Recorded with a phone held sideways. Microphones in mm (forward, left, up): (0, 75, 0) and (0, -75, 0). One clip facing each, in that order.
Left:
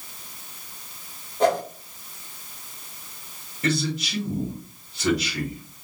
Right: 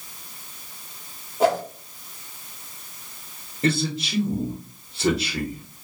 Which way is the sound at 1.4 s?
5° right (ahead or behind).